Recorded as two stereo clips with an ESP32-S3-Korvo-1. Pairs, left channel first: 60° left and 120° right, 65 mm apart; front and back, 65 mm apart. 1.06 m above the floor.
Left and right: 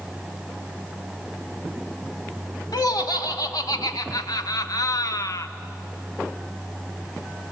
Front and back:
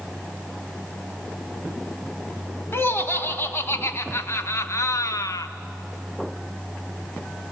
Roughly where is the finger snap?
I don't hear a finger snap.